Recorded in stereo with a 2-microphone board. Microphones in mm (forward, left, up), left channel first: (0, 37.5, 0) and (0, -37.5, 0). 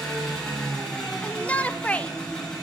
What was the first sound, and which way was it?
An engine running, 10° left (ahead or behind).